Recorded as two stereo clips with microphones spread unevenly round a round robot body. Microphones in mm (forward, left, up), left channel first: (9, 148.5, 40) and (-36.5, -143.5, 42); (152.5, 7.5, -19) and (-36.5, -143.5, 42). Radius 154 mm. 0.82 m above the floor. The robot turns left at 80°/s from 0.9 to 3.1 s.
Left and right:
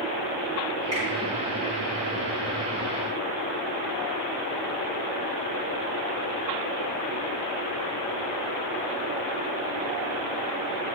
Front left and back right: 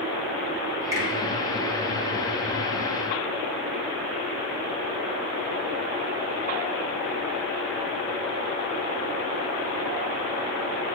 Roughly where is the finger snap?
Ahead right.